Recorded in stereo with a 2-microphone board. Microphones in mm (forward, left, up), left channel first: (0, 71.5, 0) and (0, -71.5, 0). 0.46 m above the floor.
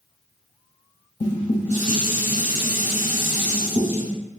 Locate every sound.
1.2 s dishes clattering: 55° left (ahead or behind), 1.9 m